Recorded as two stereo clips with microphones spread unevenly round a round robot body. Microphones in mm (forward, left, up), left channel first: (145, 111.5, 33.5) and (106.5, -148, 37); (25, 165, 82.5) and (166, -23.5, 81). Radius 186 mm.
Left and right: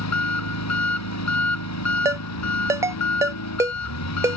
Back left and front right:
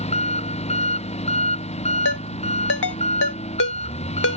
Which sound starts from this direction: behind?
A ringtone, at 2.0 s.